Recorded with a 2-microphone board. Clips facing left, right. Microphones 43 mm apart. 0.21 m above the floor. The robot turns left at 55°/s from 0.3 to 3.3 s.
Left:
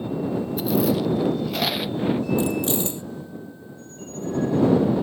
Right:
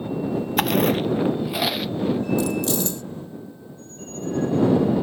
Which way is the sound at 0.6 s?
65° right (ahead or behind).